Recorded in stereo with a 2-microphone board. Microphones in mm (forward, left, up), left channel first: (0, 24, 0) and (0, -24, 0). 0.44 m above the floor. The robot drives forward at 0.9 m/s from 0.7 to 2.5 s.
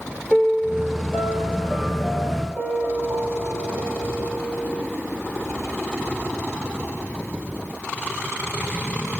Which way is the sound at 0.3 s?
5° left (ahead or behind).